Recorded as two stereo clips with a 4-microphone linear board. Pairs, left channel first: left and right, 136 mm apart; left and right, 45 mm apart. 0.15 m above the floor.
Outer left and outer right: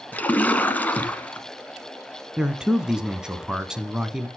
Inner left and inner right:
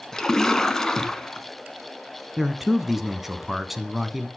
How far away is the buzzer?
I don't hear a buzzer.